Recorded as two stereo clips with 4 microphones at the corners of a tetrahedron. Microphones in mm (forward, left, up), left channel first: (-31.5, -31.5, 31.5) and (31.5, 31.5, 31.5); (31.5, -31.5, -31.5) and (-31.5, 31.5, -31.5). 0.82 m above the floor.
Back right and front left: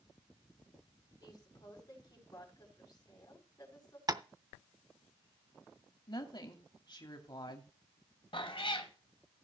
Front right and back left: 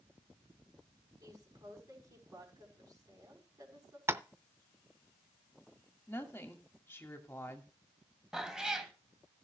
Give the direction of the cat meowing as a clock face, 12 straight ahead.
5 o'clock.